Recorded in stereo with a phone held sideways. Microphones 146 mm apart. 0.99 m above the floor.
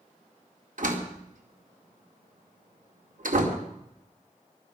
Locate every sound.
0.8 s a door slam: 70° right (ahead or behind), 2 m